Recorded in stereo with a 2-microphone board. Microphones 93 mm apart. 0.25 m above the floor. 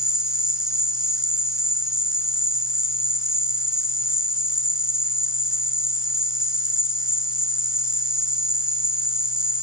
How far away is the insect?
About 1.3 m.